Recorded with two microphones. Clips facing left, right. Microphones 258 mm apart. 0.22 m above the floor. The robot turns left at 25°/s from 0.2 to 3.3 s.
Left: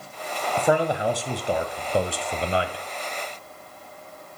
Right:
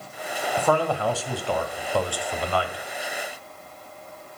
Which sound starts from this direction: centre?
A man speaking, at 0.6 s.